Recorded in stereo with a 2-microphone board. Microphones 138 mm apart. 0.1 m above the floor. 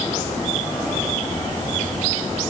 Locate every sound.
Only background noise.